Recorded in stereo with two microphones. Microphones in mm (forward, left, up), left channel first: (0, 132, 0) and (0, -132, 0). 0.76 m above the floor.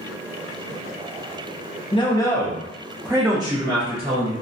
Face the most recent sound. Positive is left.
turn(degrees=-25)  # may be behind; listen again after turning